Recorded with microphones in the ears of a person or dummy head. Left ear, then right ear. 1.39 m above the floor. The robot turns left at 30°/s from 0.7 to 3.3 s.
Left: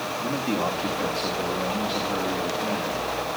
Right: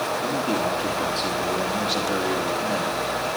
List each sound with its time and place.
0.2 s a man speaking: 25° left, 2.5 m; by 3.4 s 55° right, 2.5 m